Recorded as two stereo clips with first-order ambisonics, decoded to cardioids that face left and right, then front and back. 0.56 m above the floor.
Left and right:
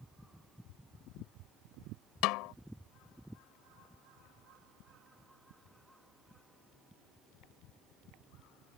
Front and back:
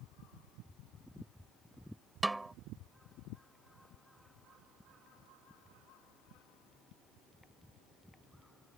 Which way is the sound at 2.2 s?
100° left.